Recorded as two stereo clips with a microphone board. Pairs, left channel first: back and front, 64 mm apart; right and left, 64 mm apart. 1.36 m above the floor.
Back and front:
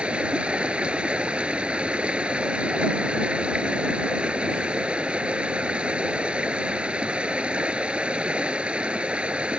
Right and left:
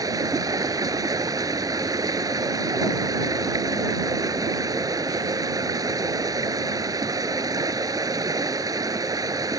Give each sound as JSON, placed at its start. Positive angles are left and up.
{"t": 0.0, "sound": "running water", "azimuth_deg": 70}